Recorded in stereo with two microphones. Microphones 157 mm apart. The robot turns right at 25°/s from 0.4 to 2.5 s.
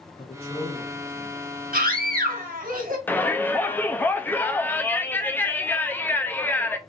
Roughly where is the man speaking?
Left.